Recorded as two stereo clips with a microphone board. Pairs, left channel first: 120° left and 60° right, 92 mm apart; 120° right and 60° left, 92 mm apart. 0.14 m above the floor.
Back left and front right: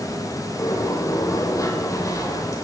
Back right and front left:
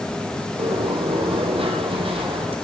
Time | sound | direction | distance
0.6 | a sliding door | 70° left | 2.5 m